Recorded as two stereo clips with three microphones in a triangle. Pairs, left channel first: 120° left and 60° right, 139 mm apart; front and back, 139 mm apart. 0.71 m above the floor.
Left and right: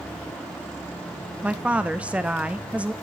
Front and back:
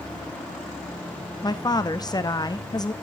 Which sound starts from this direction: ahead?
A woman speaking, at 1.4 s.